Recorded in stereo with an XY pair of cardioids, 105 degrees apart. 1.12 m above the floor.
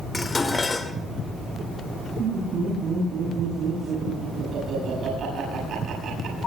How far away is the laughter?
About 8 m.